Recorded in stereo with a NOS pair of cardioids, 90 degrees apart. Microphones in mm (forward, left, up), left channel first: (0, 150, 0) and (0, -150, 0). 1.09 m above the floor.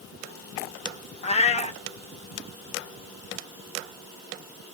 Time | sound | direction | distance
1.2 | a cat meowing | 20° left | 0.8 m